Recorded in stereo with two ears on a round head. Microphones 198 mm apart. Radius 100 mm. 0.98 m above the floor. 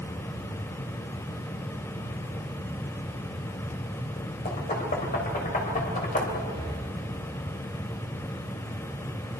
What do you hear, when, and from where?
4.5 s knocking: 40° left (ahead or behind), 3.5 m
6.5 s breathing: 25° left (ahead or behind), 8 m